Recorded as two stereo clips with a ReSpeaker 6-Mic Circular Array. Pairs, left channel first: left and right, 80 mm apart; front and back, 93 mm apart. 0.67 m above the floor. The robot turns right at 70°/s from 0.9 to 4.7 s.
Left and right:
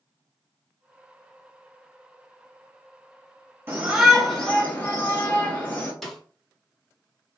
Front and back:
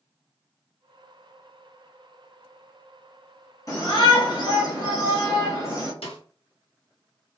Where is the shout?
35° right, 1.5 m; by 5.9 s 35° left, 1.5 m.